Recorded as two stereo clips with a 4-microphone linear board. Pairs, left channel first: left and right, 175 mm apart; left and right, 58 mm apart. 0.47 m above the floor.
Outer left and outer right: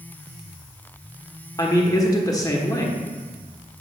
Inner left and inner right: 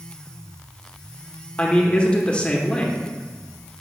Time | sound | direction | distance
1.6 | a man speaking | 20° left (ahead or behind) | 1.0 m